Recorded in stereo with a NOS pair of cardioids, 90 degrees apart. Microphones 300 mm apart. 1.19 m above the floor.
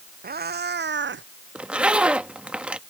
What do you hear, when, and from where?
0.2 s a cat meowing: 30° right; by 1.2 s 40° right
1.6 s a zipper: 5° right